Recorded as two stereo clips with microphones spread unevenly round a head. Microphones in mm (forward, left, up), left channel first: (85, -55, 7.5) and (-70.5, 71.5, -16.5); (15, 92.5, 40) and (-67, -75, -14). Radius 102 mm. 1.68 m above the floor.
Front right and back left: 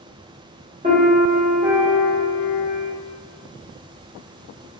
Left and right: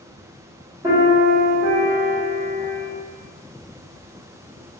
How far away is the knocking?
I don't hear knocking.